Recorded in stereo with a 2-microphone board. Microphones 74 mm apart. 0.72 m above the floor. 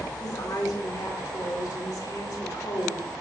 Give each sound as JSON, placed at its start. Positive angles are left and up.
{"t": 0.2, "sound": "a woman speaking", "side_deg": 55, "distance_m": 2.0}